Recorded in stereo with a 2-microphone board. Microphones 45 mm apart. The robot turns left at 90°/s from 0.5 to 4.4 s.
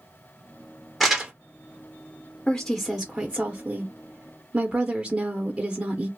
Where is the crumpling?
Centre (ahead or behind), 1.4 m; by 1.3 s 25° right (ahead or behind), 1.4 m.